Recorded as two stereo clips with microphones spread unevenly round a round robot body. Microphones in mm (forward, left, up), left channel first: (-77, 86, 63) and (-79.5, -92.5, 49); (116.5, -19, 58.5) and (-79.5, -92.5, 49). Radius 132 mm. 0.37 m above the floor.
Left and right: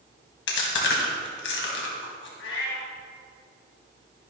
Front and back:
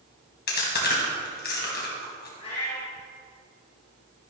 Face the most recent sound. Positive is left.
turn(degrees=90)